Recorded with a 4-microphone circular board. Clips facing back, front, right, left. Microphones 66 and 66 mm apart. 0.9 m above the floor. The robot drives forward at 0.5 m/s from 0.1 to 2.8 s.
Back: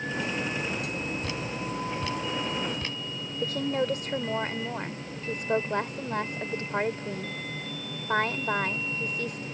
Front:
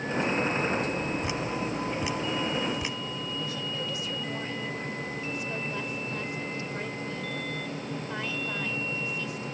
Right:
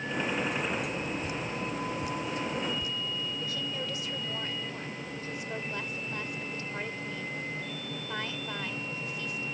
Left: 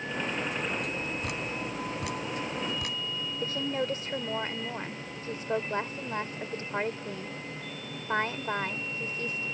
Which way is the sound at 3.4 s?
140° left.